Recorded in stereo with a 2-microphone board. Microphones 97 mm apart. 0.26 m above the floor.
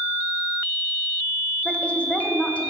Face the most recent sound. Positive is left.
turn(degrees=15)  # may be behind; listen again after turning